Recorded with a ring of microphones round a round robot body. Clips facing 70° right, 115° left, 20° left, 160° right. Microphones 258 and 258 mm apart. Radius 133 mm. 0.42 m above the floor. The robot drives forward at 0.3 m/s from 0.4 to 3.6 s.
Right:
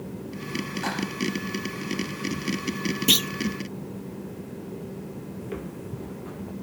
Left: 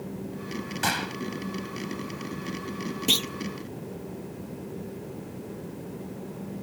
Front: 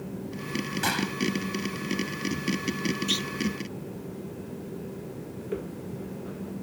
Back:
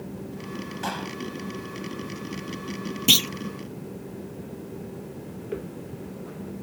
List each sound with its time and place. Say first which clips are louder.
0.8 s a gunshot: right 3 dB, front 3 dB; 70° left; by 1.1 s 75° left
3.1 s a clunk: right 3 dB, back 5 dB; 140° right
5.4 s footsteps: right 3 dB, even; 65° right; by 6.5 s 70° right